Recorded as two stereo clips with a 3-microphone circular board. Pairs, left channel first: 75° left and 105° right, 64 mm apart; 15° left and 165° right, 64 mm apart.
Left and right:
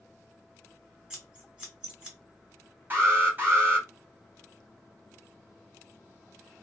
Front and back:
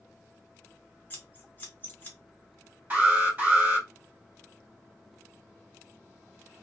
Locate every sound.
1.1 s scissors: 35° right, 1.6 m
2.9 s an alarm: 125° right, 1.9 m